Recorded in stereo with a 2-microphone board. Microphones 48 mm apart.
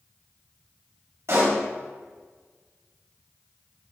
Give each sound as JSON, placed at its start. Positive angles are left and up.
{"t": 1.3, "sound": "a pop", "side_deg": -65, "distance_m": 2.5}